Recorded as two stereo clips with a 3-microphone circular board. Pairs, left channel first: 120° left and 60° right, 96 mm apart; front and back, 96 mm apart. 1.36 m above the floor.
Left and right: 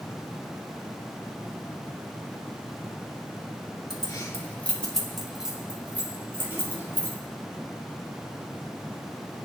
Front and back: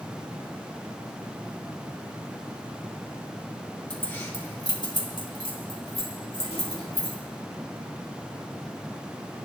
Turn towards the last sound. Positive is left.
turn(degrees=5)